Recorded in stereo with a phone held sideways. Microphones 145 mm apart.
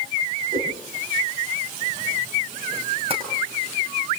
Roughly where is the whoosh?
Right.